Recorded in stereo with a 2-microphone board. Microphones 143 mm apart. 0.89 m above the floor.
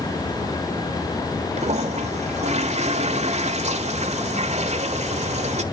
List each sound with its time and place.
1.6 s a toilet flushing: 55° right (ahead or behind), 1.4 m